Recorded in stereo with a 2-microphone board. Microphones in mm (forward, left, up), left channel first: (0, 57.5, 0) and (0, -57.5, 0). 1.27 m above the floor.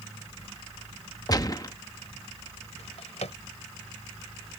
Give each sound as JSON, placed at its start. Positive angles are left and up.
{"t": 1.3, "sound": "a gunshot", "side_deg": 35}
{"t": 2.8, "sound": "a drawer", "side_deg": 75}